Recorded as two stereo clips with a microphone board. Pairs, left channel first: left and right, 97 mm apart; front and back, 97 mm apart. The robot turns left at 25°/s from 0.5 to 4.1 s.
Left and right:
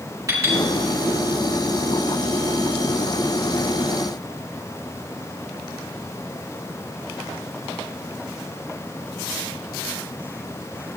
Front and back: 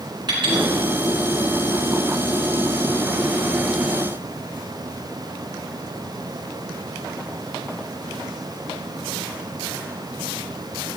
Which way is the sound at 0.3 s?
140° right.